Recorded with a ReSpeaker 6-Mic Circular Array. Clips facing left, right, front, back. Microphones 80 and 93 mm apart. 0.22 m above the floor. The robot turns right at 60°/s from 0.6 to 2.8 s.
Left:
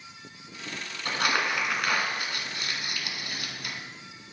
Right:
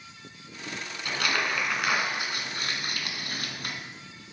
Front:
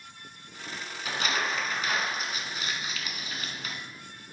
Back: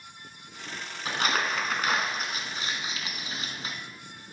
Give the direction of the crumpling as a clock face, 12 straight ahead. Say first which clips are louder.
Left 2 dB, back 2 dB; 7 o'clock.